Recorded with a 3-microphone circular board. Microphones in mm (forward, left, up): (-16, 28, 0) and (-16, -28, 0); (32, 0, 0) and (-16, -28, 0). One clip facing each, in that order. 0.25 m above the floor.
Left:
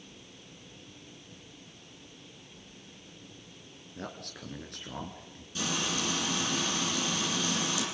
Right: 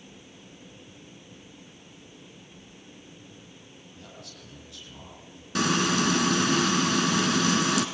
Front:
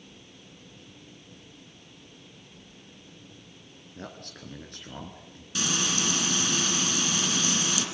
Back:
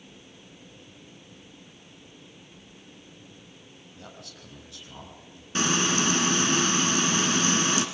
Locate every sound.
4.0 s a man speaking: 65° left, 3 m
5.5 s frying: 95° right, 2.5 m